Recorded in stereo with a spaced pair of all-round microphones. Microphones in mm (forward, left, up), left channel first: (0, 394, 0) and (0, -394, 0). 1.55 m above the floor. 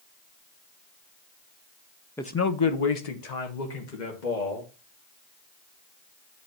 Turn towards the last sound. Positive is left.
turn(degrees=70)  # may be behind; listen again after turning